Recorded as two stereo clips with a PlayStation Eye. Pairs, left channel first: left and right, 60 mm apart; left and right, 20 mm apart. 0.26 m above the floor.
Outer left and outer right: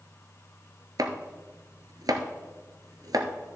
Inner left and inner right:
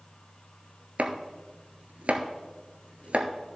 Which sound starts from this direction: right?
Chopping, at 1.0 s.